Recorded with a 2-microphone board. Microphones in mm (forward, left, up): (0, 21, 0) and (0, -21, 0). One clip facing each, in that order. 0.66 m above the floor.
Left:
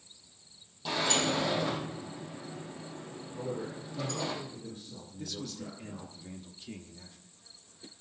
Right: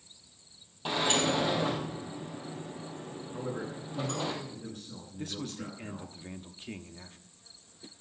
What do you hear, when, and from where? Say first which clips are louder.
0.8 s a sliding door: right 2 dB; 45° right (ahead or behind), 4 m
3.3 s a man speaking: even; 80° right, 8.5 m
5.2 s a man speaking: right 2 dB; 45° right (ahead or behind), 1.1 m